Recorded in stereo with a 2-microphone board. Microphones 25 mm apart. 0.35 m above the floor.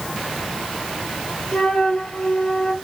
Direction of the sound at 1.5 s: 55° left (ahead or behind).